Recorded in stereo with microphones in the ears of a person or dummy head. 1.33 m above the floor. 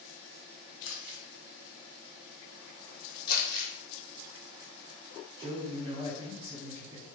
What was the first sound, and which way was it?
Crumpling, 60° left (ahead or behind).